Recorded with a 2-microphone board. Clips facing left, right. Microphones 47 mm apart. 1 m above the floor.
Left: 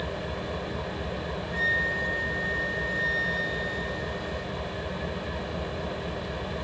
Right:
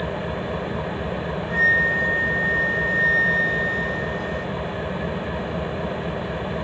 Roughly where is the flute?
Right.